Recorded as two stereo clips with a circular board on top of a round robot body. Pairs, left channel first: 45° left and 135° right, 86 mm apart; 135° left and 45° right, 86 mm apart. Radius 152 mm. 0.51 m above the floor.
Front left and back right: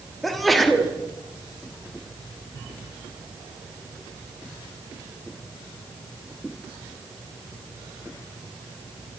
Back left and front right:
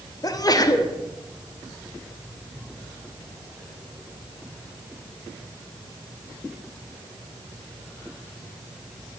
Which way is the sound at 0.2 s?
135° left.